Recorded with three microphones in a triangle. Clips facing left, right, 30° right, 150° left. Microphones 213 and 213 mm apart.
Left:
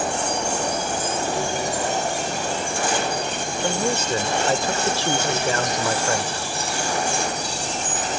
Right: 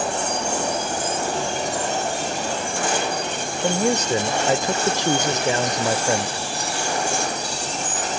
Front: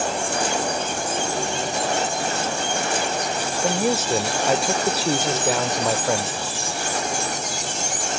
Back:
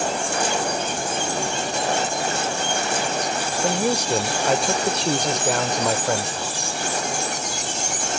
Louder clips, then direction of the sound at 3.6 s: Right 4 dB, even; 110° right.